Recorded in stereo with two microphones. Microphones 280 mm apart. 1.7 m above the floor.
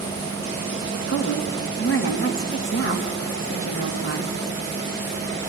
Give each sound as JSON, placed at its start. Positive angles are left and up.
{"t": 1.1, "sound": "a woman speaking", "side_deg": 50, "distance_m": 2.0}